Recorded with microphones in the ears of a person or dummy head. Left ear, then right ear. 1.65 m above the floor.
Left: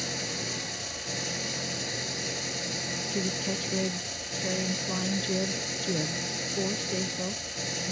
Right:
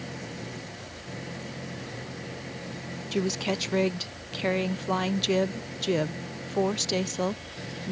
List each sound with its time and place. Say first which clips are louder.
0.0 s an engine running: left 7 dB; 90° left
3.1 s a woman speaking: right 7 dB; 30° right (ahead or behind)